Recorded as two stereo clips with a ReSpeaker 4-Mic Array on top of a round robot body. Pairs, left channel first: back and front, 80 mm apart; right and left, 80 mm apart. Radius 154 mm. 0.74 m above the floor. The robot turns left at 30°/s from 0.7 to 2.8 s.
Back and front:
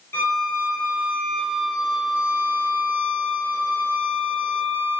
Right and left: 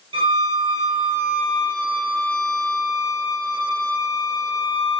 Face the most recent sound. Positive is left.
turn(degrees=55)